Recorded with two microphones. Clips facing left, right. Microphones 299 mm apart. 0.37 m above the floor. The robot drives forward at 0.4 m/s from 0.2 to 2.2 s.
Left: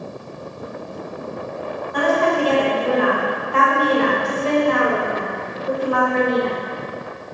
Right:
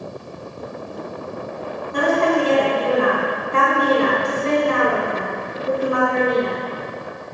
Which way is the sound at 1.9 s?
25° right (ahead or behind).